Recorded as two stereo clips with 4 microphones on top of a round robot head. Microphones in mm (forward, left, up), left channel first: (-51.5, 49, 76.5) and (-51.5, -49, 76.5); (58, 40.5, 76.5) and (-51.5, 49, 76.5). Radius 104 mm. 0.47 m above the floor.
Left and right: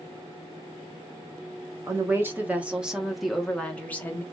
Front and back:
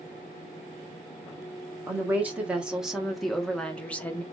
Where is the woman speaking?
125° right, 1.4 m; by 4.2 s 50° left, 1.3 m.